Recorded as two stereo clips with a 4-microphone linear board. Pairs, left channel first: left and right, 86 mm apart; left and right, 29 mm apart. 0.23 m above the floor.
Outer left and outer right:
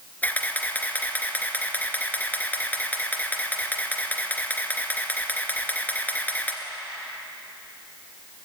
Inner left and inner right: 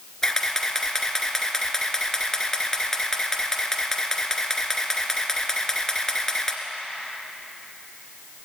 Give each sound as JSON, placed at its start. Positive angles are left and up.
{"t": 0.2, "sound": "a camera shutter", "side_deg": 20, "distance_m": 2.0}